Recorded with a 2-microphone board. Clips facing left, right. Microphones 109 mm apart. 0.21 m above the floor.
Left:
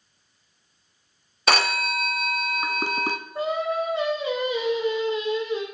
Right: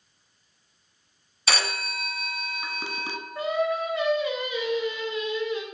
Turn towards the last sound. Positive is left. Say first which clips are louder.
# even
turn(degrees=30)  # may be behind; listen again after turning